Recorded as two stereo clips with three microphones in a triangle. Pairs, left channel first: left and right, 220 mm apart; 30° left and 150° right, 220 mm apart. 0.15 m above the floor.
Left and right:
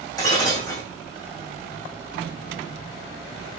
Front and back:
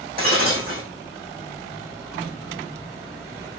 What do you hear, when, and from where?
0.2 s breaking glass: 165° left, 6 m